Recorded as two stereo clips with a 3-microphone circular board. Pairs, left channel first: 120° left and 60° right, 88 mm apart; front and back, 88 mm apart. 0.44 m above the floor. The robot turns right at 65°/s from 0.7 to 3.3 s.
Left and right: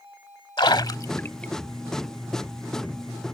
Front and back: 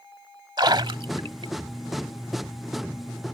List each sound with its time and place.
0.6 s a splash: 150° left; by 1.5 s 160° right